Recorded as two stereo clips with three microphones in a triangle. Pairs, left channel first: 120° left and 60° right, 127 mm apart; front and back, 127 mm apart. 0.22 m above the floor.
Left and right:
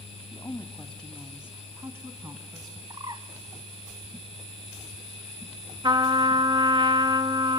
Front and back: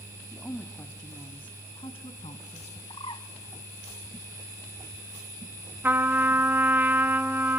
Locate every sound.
0.3 s a woman speaking: 70° left, 1.4 m; by 2.8 s 5° right, 2 m
2.9 s a bird: 20° right, 1.3 m
5.8 s a trumpet: 105° right, 0.9 m